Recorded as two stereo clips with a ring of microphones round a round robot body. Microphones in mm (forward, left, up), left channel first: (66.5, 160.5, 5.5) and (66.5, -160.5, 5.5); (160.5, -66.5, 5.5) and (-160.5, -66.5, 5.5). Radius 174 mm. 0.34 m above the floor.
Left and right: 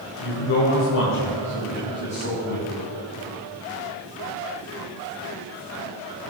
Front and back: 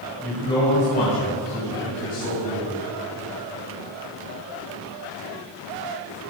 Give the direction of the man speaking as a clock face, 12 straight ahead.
9 o'clock.